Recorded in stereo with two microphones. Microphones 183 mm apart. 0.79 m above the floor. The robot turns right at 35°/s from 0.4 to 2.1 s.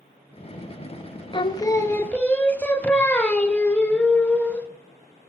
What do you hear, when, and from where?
1.3 s singing: 25° left (ahead or behind), 0.5 m; by 4.7 s 10° left (ahead or behind), 0.5 m